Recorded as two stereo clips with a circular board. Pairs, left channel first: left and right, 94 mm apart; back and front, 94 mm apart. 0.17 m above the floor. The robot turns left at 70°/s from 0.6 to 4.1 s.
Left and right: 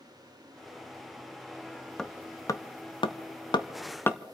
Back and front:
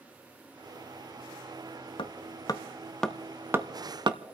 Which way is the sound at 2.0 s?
170° left.